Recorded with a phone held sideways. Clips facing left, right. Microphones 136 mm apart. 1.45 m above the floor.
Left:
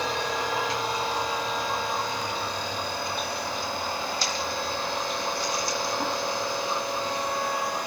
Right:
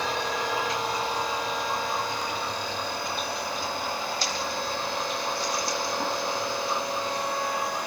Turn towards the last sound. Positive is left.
No sound to turn to.